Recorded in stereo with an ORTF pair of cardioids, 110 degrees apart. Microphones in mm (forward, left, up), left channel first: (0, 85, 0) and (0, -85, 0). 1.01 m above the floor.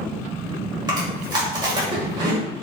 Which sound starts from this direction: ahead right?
Chewing, at 0.9 s.